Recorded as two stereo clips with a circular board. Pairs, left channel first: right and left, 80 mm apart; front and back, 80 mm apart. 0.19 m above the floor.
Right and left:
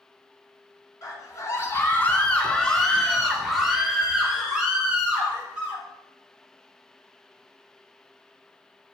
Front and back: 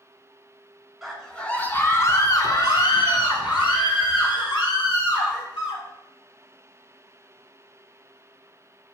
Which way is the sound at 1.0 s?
90° right.